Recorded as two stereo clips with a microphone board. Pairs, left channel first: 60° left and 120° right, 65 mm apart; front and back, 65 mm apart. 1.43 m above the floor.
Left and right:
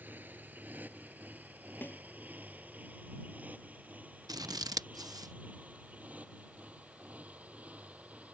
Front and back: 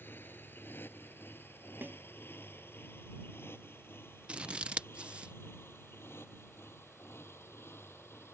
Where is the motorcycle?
55° right; by 8.3 s 50° right.